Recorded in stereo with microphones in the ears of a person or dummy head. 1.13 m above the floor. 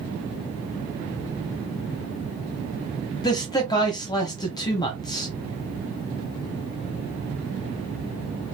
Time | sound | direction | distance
3.2 | a man speaking | 20° left (ahead or behind) | 0.9 m